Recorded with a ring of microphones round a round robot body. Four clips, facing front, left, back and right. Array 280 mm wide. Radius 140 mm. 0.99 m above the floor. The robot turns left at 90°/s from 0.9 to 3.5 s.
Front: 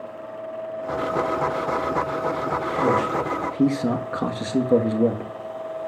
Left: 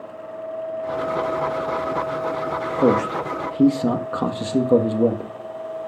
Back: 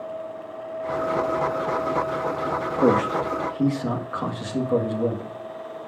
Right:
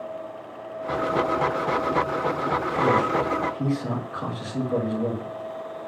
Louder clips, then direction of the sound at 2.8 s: Left 4 dB, back 3 dB; 125° left.